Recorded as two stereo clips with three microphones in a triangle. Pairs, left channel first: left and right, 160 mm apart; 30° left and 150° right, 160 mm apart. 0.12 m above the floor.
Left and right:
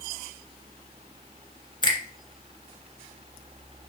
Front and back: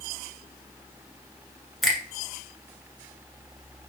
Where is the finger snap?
120° left, 1.6 m.